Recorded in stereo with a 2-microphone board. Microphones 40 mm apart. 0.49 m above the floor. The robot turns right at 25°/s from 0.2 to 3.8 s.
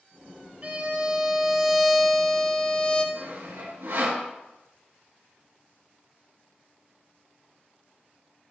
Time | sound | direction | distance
0.6 | a violin | 35° right | 1.6 m
3.1 | sawing | 85° right | 4 m